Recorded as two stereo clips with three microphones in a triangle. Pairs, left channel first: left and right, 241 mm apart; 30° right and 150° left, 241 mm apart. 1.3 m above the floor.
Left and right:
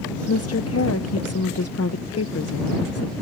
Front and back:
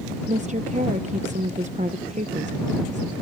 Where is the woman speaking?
95° left.